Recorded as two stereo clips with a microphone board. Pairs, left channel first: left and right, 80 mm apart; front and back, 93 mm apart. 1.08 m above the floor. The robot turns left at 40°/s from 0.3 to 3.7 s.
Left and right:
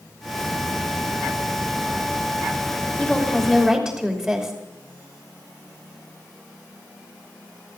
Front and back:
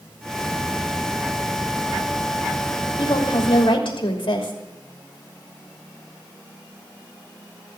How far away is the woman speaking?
About 3 m.